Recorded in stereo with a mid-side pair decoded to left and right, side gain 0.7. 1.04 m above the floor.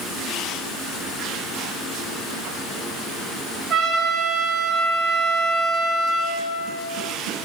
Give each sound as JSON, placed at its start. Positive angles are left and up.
{"t": 3.7, "sound": "a trumpet", "azimuth_deg": -45, "distance_m": 1.9}